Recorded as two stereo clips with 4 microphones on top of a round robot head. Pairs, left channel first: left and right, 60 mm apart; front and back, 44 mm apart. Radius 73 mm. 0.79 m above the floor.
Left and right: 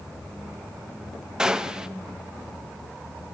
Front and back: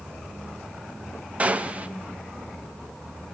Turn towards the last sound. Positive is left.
turn(degrees=-160)